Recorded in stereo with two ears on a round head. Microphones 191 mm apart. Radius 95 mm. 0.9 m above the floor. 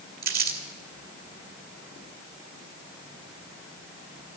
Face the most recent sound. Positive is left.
turn(degrees=-50)  # may be behind; listen again after turning